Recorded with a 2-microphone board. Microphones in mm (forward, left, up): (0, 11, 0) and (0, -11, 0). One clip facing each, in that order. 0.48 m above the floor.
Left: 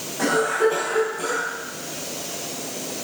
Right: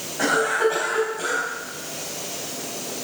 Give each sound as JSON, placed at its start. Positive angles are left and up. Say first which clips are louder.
{"t": 0.2, "sound": "a cough", "louder": "even", "side_deg": -20, "distance_m": 3.0}